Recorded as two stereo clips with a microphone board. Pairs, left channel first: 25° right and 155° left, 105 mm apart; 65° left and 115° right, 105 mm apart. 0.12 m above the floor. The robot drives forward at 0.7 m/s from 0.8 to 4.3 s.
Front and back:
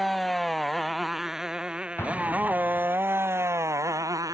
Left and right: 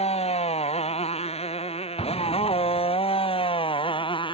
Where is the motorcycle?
65° left; by 4.3 s 100° left.